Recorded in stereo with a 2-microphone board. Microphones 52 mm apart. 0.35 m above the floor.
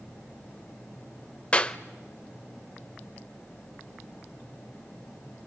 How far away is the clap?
About 0.7 m.